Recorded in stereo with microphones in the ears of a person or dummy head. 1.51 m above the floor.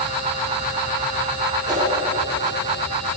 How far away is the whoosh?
About 4 m.